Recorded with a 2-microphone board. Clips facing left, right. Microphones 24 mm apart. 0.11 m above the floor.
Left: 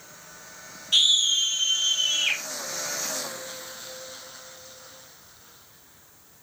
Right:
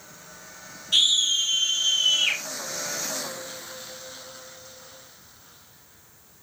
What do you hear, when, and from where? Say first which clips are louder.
0.9 s a scream: even; 10° left (ahead or behind), 4 m; by 2.4 s 5° left (ahead or behind), 6 m